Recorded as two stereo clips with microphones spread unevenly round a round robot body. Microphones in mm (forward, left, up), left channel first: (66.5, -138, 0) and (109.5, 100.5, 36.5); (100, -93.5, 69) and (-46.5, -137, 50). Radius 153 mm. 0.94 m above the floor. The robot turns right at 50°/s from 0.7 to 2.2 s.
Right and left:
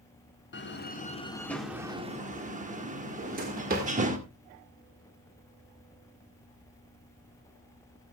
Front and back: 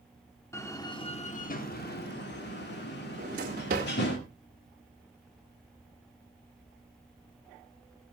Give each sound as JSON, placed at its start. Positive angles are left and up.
{"t": 0.5, "sound": "a door slam", "azimuth_deg": -55, "distance_m": 2.0}
{"t": 3.2, "sound": "a drawer", "azimuth_deg": 145, "distance_m": 1.6}